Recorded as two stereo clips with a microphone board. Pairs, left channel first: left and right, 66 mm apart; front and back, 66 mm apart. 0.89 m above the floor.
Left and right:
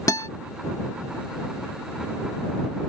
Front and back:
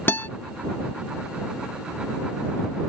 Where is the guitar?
55° left.